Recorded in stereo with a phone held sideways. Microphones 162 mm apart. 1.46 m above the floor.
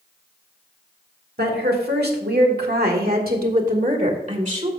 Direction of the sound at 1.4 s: 75° right (ahead or behind).